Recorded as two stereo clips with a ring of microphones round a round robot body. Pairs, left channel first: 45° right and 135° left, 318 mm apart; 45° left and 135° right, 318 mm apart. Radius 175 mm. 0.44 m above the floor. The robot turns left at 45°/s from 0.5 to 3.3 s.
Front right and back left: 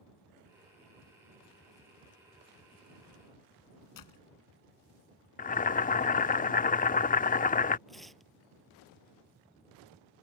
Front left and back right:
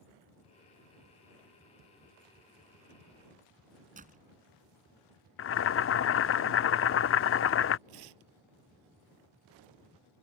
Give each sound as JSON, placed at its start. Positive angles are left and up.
{"t": 4.0, "sound": "a door slam", "azimuth_deg": -70}
{"t": 5.4, "sound": "boiling", "azimuth_deg": 10}
{"t": 7.9, "sound": "tearing paper", "azimuth_deg": -135}